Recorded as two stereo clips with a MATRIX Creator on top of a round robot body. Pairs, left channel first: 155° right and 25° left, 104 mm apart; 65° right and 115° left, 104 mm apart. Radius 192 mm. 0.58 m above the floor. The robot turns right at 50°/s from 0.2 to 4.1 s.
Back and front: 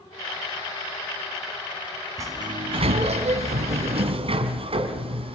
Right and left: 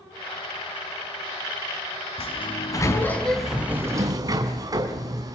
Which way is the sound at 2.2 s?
40° right.